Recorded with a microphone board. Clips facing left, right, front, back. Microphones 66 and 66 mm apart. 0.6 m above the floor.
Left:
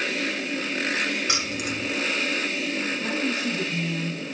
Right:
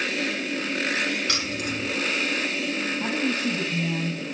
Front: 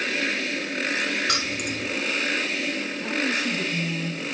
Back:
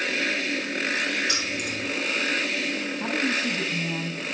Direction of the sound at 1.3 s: 15° left.